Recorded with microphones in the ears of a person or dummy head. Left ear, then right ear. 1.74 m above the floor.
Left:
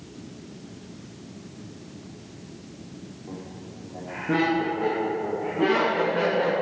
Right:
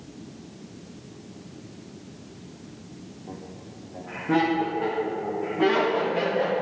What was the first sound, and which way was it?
Laughter, 5° right (ahead or behind).